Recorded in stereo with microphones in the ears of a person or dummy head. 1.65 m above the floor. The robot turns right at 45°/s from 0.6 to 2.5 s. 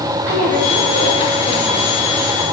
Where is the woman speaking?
100° right, 2.5 m; by 1.9 s 40° right, 2.5 m.